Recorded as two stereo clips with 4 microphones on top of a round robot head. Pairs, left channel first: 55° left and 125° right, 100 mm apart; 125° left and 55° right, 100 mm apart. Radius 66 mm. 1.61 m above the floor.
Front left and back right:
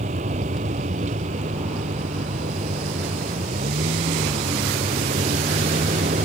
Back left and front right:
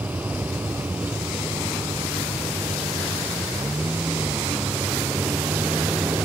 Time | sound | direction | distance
0.0 | a vehicle | 130° right | ?